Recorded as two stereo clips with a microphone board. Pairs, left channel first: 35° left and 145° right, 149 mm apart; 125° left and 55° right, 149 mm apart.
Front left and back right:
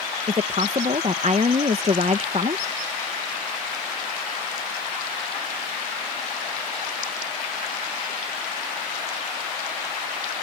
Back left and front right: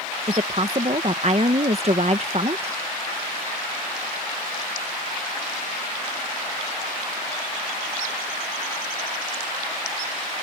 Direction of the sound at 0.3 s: 100° right.